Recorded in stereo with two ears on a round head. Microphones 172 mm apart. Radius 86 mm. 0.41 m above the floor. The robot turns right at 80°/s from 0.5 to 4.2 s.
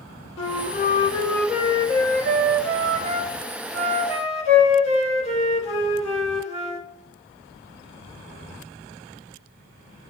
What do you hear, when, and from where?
0.4 s a flute: 105° left, 3 m; by 6.9 s 40° left, 3 m